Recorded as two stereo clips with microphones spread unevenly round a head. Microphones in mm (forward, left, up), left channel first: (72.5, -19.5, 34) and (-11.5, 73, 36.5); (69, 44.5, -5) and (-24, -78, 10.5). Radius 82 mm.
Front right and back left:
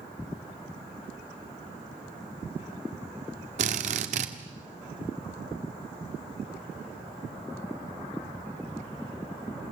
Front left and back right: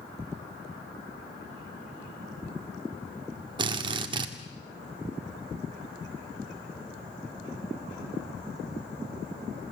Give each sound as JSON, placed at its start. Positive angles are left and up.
{"t": 3.6, "sound": "a drill", "azimuth_deg": 170, "distance_m": 1.7}